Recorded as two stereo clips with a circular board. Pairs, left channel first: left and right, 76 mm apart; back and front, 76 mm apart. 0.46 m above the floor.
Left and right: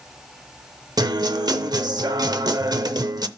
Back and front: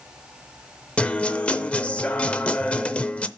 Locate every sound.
1.0 s a guitar: 105° right, 0.6 m